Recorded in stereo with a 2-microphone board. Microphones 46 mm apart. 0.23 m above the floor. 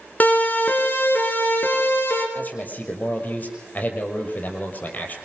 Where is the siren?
40° left (ahead or behind), 4 m; by 2.2 s 55° left (ahead or behind), 7 m.